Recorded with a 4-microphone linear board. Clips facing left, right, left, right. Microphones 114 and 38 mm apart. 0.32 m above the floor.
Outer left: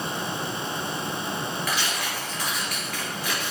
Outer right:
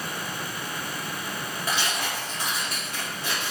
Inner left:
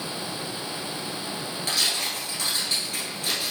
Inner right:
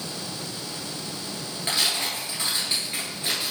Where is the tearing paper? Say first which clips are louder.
Even, inner right 1 dB; 25° right (ahead or behind), 1.7 m.